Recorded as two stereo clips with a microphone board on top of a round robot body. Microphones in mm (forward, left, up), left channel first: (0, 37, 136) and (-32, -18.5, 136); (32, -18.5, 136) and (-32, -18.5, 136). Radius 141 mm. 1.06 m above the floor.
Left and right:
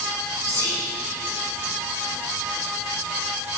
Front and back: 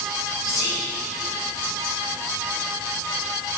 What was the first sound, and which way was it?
Whispering, 20° left.